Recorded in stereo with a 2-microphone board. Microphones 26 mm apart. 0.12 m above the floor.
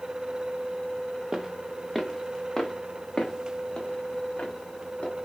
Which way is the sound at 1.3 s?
25° right (ahead or behind).